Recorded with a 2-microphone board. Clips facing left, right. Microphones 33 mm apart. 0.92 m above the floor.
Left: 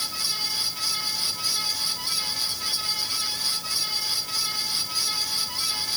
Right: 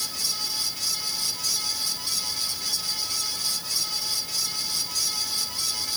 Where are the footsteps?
No footsteps in this recording.